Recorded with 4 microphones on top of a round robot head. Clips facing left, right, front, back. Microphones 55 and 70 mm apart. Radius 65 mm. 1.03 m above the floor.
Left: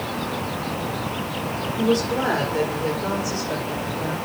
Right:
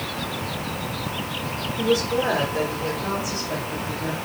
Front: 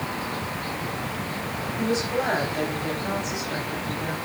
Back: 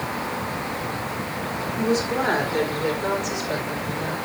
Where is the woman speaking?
140° left, 4.5 m; by 4.2 s 155° left, 5.5 m.